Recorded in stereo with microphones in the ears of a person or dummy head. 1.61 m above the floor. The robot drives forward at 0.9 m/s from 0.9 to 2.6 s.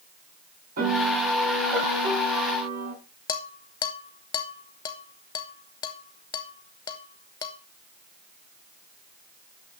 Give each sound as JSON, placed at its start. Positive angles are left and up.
{"t": 0.8, "sound": "a piano", "side_deg": -45, "distance_m": 5.5}
{"t": 3.3, "sound": "dishes clattering", "side_deg": 20, "distance_m": 0.9}